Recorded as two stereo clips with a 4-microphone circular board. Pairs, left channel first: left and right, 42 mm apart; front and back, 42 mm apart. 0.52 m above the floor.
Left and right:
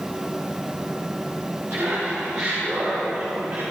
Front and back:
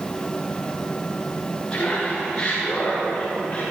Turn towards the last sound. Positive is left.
turn(degrees=-65)